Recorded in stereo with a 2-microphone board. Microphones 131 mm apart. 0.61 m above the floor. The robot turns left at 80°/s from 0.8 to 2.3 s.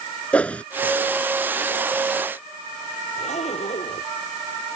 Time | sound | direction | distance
0.3 | a whoosh | 10° left (ahead or behind) | ?
3.2 | a zipper | 55° left (ahead or behind) | ?